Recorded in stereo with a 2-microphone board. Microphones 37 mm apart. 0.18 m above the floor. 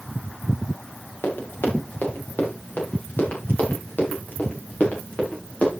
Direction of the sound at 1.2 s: 80° left.